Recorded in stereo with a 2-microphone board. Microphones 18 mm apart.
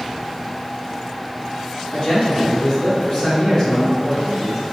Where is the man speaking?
45° left (ahead or behind), 1.5 m; by 4.6 s 30° left (ahead or behind), 2.5 m.